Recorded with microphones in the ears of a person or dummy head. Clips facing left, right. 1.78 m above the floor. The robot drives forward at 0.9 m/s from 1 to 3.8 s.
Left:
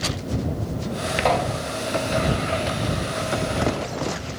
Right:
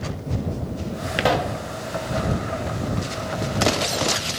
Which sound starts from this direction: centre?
A pop, at 1.2 s.